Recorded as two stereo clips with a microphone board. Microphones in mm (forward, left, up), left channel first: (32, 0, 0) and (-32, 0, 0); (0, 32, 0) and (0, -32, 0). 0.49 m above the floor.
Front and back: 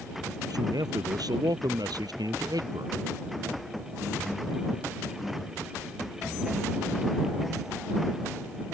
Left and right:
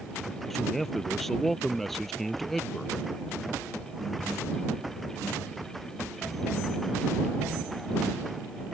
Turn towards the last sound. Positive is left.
turn(degrees=175)